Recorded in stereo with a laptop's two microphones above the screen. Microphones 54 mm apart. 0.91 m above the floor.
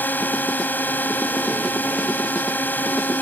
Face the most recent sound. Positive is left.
turn(degrees=35)  # may be behind; listen again after turning